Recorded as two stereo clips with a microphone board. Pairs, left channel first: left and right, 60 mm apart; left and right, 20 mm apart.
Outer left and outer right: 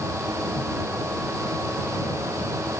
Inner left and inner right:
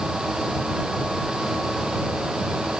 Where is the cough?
I don't hear a cough.